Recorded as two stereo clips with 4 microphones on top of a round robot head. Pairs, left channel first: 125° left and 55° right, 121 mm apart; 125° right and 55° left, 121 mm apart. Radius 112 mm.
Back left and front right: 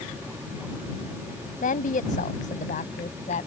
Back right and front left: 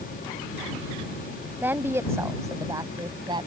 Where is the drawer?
No drawer in this recording.